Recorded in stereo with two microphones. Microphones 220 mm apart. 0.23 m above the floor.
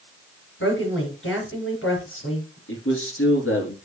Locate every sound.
0.6 s a woman speaking: 65° left (ahead or behind), 4 m
2.7 s a man speaking: 70° left (ahead or behind), 3.5 m